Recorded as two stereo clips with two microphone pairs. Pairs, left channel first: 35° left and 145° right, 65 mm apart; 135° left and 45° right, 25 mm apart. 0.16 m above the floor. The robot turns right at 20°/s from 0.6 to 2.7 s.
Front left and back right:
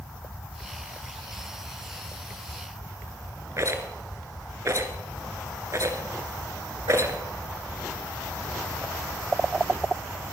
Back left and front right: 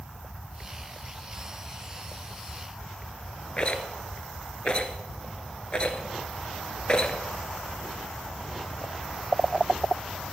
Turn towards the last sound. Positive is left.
turn(degrees=-175)